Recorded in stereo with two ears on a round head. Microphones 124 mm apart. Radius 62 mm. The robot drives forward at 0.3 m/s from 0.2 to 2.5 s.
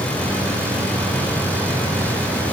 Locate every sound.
Only background noise.